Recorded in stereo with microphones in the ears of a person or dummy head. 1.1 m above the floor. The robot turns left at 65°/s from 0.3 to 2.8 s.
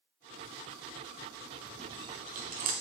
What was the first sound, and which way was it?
Chewing, 5° right (ahead or behind).